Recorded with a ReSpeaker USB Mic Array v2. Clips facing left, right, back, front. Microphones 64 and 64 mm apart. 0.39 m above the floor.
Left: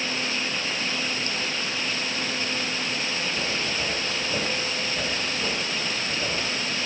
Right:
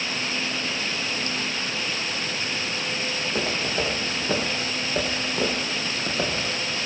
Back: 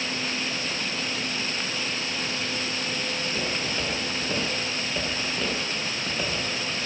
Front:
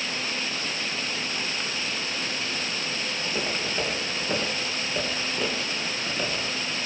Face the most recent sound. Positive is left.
turn(degrees=-95)